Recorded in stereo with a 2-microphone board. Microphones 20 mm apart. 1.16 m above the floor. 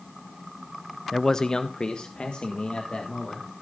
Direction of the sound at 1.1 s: 15° left (ahead or behind).